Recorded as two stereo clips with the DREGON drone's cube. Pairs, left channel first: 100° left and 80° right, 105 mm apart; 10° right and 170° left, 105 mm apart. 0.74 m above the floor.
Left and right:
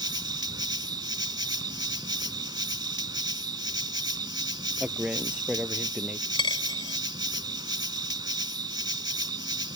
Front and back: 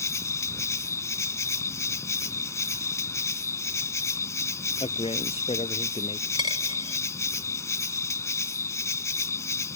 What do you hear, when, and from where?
0.0 s an insect: 60° right
4.8 s a man speaking: straight ahead
6.3 s a dropped coin: 130° left